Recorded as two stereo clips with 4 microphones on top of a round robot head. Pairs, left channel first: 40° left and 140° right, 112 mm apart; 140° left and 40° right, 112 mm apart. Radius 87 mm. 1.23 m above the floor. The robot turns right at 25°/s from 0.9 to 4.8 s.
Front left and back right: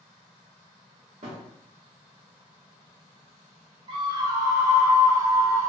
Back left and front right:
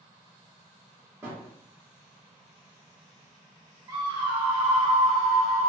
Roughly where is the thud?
Right.